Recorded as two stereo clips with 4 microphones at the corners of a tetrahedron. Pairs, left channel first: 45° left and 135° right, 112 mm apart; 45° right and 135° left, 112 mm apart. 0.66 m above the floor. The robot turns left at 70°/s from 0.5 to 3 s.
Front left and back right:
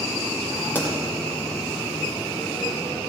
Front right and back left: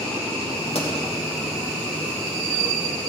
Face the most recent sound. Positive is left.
turn(degrees=175)